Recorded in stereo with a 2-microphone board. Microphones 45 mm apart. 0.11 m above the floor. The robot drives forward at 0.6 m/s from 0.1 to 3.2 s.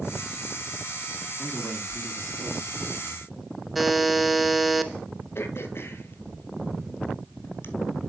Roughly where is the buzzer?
Centre.